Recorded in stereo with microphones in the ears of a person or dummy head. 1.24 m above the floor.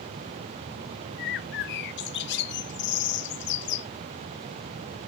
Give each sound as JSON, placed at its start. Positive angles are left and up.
{"t": 1.2, "sound": "a bird", "side_deg": 55, "distance_m": 0.8}